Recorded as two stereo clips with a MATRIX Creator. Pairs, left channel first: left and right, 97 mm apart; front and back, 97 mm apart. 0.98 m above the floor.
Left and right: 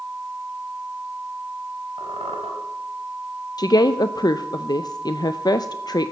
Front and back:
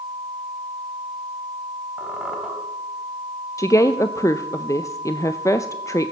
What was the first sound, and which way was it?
A squeak, 90° right.